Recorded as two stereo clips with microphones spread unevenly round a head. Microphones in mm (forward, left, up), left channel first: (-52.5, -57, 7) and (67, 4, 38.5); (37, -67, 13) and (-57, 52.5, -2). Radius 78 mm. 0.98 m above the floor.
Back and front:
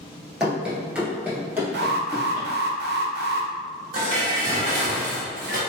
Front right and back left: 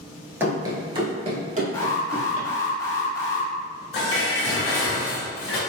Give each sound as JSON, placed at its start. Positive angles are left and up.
{"t": 0.4, "sound": "running footsteps", "azimuth_deg": 60, "distance_m": 1.0}
{"t": 1.7, "sound": "an alarm", "azimuth_deg": 20, "distance_m": 0.7}
{"t": 3.9, "sound": "dishes clattering", "azimuth_deg": 0, "distance_m": 1.5}